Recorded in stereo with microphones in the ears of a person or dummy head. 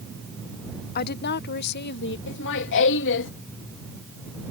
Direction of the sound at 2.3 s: 65° left (ahead or behind).